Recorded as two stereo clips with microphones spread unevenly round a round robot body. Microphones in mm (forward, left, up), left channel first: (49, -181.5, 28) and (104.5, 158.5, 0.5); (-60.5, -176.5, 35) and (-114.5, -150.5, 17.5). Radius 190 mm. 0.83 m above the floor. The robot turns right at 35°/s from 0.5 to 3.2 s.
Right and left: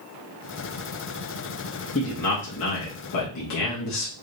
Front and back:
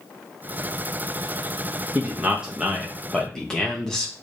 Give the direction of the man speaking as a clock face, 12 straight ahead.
6 o'clock.